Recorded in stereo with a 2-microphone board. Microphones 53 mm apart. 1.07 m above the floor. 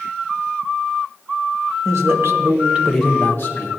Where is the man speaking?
65° right (ahead or behind), 1.3 m; by 3.7 s 55° left (ahead or behind), 0.9 m.